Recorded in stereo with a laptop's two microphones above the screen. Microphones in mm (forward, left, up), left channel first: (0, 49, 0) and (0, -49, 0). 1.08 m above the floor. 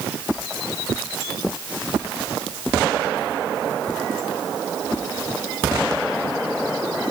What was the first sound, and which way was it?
Only background noise.